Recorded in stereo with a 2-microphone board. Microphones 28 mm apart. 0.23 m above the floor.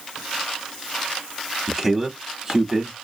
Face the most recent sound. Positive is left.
turn(degrees=-20)  # may be behind; listen again after turning